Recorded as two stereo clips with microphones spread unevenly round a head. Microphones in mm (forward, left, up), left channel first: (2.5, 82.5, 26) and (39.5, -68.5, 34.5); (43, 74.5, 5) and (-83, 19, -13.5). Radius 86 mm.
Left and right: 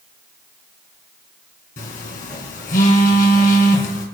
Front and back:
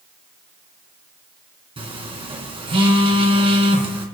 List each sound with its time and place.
1.8 s a phone buzzing: 150° left, 2.5 m